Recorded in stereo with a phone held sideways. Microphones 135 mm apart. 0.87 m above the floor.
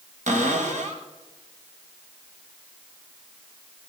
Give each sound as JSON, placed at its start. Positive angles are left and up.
{"t": 0.3, "sound": "a cupboard door", "side_deg": -70, "distance_m": 1.9}